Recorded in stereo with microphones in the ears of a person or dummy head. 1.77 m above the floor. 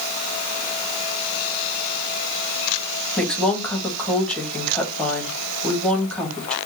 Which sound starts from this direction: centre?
A woman speaking, at 3.2 s.